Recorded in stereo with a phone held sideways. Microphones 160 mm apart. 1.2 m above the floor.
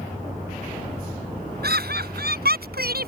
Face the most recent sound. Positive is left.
turn(degrees=-75)  # may be behind; listen again after turning